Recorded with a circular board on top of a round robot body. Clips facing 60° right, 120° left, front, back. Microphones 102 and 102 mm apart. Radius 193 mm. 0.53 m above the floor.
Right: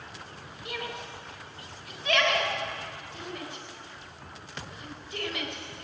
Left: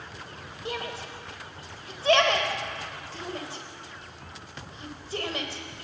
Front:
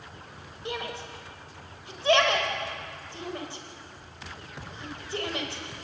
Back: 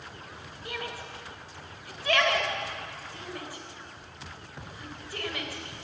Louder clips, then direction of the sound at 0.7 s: Left 3 dB, front 3 dB; 65° left.